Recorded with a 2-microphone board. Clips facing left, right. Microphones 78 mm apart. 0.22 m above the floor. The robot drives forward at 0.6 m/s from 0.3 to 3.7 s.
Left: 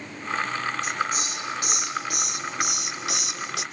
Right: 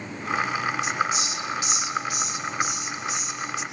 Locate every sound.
0.8 s a hiss: 45° left (ahead or behind), 3 m; by 3.6 s 85° left, 2 m